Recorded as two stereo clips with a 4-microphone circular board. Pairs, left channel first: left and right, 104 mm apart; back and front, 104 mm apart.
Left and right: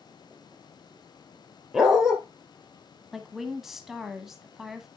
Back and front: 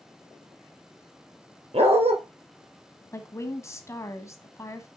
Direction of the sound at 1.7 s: 5° right.